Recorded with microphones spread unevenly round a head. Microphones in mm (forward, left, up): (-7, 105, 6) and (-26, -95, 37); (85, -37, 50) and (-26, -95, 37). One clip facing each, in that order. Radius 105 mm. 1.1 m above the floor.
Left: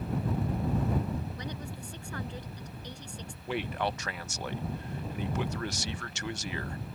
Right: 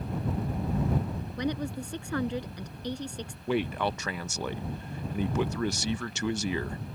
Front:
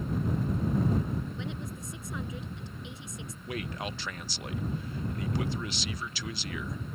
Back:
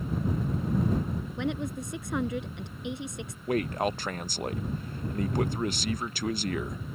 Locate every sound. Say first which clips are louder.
1.4 s a woman speaking: right 9 dB, back 7 dB; 125° right
3.5 s a man speaking: right 4 dB, back 9 dB; 105° right